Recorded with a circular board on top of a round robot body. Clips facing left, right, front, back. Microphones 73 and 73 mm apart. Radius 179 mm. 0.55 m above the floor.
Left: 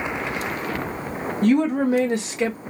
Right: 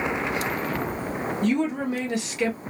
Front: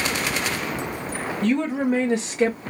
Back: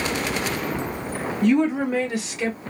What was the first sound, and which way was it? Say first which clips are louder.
A woman speaking: left 7 dB, back 3 dB; 95° left.